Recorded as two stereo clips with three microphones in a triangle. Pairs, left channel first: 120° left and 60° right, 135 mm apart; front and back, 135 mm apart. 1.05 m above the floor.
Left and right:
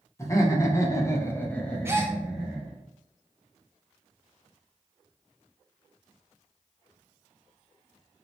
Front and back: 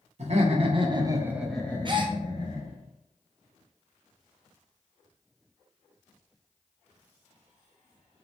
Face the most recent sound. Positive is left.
turn(degrees=-130)